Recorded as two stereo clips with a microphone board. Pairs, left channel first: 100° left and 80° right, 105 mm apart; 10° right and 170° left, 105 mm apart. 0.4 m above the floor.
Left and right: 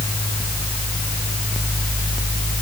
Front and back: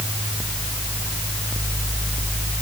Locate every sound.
Only background noise.